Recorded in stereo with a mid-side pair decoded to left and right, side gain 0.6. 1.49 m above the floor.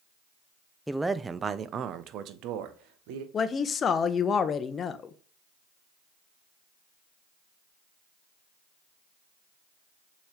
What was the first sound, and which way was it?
A man speaking, straight ahead.